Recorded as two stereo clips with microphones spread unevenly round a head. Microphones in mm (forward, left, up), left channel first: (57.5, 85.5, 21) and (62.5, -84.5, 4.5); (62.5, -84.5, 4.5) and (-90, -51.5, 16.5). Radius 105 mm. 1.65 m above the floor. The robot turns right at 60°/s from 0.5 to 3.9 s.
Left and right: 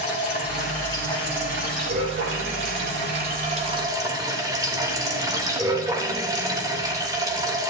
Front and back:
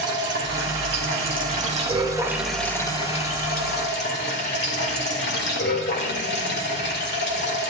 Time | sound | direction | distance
0.0 | running water | 135° left | 2.5 m